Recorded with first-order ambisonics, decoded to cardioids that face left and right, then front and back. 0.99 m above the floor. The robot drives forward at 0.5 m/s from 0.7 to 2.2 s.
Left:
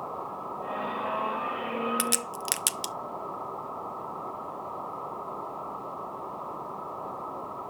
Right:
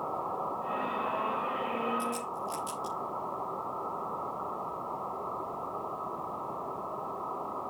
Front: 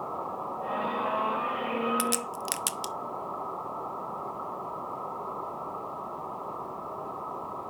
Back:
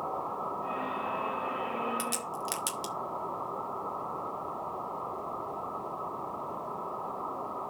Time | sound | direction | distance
2.0 | a crack | 65° left | 0.8 m